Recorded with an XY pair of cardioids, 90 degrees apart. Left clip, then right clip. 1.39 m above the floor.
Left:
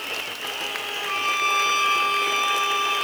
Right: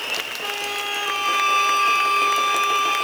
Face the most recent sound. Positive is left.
turn(degrees=-40)